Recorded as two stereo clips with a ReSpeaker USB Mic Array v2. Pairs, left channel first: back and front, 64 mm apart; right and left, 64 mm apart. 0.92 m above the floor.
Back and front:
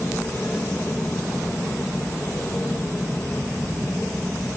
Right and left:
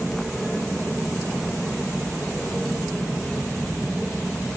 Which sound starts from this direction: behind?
An aircraft, at 0.0 s.